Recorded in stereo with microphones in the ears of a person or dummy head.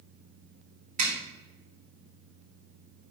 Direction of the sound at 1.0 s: 45° right (ahead or behind).